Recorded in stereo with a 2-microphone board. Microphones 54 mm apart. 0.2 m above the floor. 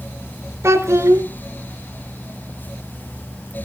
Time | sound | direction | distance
0.6 | a child speaking | 65° right (ahead or behind) | 1.6 m